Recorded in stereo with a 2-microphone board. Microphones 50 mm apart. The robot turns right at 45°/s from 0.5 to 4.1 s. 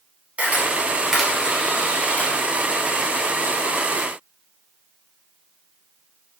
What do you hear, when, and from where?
0.4 s a camera shutter: 30° right (ahead or behind), 1.2 m; by 2.3 s 35° left (ahead or behind), 1.2 m